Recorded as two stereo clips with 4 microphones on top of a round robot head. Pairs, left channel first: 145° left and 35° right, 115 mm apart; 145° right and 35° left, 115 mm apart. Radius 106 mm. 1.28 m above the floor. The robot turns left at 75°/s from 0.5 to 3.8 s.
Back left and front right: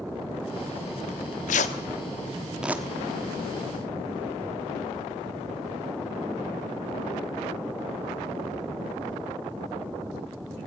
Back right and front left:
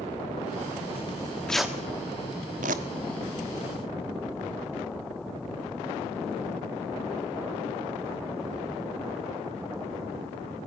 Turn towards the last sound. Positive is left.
turn(degrees=-40)